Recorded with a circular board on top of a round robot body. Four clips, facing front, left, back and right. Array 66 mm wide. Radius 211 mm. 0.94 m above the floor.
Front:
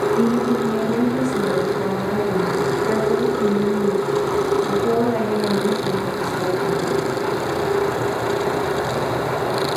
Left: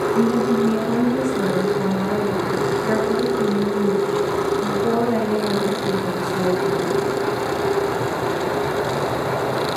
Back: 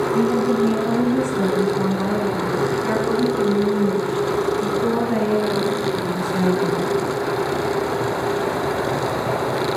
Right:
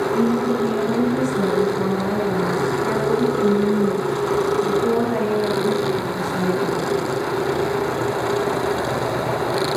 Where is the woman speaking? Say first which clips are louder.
Left 2 dB, even; 160° right, 6.5 m.